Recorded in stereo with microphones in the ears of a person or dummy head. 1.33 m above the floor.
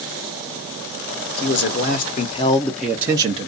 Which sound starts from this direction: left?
A man speaking, at 1.4 s.